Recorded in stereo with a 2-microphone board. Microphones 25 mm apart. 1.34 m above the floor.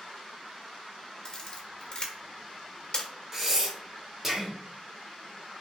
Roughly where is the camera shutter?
Left.